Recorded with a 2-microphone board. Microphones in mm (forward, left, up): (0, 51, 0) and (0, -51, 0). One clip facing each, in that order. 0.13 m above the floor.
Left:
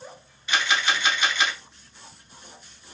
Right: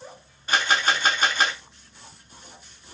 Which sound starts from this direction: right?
A camera shutter, at 0.5 s.